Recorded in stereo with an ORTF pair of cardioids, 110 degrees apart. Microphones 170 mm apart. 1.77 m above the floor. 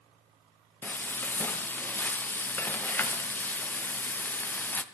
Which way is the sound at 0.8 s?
10° left.